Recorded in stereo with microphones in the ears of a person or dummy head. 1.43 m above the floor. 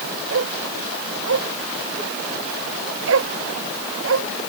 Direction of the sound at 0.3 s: 80° right.